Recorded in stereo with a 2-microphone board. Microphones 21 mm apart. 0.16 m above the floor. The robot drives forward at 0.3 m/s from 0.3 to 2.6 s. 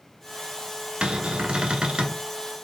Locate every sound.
1.0 s a cupboard door: 55° right (ahead or behind), 0.6 m; by 2.2 s 40° right (ahead or behind), 0.7 m